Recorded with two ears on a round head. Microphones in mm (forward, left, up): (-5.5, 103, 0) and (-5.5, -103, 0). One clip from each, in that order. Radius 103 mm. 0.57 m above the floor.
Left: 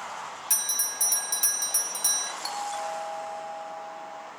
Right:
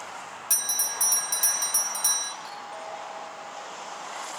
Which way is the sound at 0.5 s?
Centre (ahead or behind).